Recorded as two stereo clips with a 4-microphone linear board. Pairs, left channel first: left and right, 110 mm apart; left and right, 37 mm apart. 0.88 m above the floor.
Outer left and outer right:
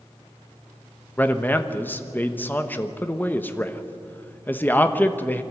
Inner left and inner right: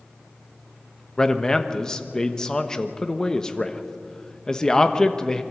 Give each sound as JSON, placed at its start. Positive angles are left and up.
{"t": 1.2, "sound": "a man speaking", "side_deg": 15, "distance_m": 1.1}